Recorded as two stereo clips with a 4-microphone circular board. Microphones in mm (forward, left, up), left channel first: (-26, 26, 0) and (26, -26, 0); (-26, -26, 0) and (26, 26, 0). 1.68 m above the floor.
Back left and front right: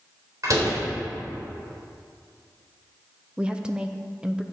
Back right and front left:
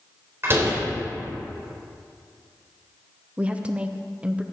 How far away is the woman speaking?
About 0.6 m.